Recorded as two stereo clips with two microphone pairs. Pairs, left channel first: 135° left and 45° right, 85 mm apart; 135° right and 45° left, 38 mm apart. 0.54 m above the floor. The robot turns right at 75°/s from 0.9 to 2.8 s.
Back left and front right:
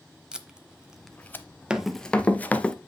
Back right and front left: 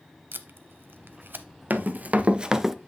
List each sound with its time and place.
0.3 s tape being pulled: 35° left, 0.6 m; by 1.4 s 75° left, 0.6 m
1.7 s running footsteps: 30° left, 0.8 m; by 2.8 s 95° left, 0.5 m